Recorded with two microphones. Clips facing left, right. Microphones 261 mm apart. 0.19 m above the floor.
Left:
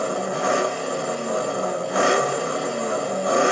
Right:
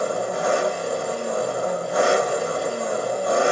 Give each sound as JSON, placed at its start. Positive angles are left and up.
{"t": 0.0, "sound": "an engine running", "side_deg": 75, "distance_m": 0.8}